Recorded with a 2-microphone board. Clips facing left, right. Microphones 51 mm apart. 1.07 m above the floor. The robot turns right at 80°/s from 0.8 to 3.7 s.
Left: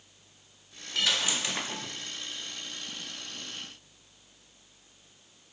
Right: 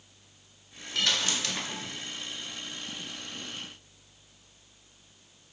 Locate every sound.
0.9 s a dropped coin: centre (ahead or behind), 0.5 m; by 2.0 s 25° left (ahead or behind), 0.5 m